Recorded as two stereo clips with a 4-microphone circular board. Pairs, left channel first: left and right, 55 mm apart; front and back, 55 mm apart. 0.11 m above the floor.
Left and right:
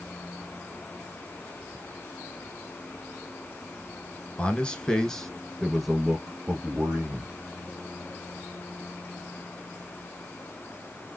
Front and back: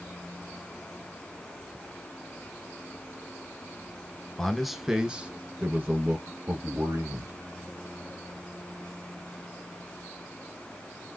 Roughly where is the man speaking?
Left.